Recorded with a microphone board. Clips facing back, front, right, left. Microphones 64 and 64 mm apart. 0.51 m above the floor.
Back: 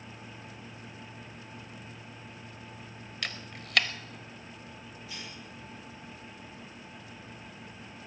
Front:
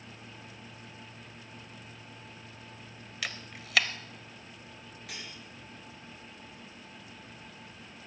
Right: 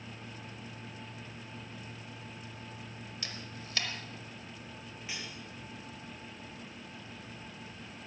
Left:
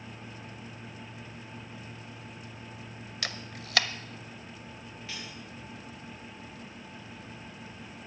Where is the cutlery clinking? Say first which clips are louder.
Even, even; 15° right, 5 m.